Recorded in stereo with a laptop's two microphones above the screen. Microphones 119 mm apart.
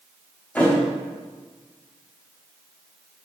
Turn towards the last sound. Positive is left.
turn(degrees=15)  # may be behind; listen again after turning